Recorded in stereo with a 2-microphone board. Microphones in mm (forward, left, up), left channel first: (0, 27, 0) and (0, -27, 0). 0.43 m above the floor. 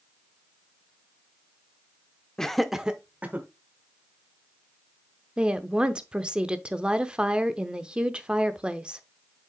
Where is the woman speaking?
20° right (ahead or behind), 0.7 m.